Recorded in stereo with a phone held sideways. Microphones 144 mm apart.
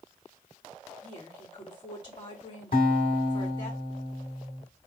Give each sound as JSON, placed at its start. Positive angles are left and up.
{"t": 1.0, "sound": "a woman speaking", "side_deg": 35, "distance_m": 3.0}
{"t": 2.7, "sound": "a guitar", "side_deg": 75, "distance_m": 1.9}